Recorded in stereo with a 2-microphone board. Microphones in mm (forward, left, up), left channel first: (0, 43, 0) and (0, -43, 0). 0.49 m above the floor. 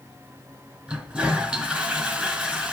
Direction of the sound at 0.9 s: 15° right (ahead or behind).